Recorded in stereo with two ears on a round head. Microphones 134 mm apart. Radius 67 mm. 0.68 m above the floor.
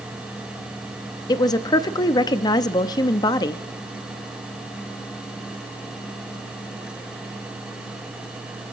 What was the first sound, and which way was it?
A woman speaking, 25° left (ahead or behind).